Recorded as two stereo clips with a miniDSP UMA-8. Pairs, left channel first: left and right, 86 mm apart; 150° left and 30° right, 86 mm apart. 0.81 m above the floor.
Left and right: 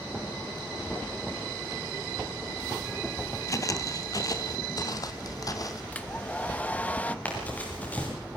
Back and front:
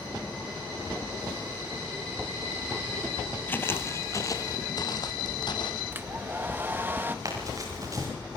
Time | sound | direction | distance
3.5 | footsteps | 95° left | 1.0 m
5.9 | a hair dryer | 25° left | 0.9 m
7.2 | running footsteps | 20° left | 7 m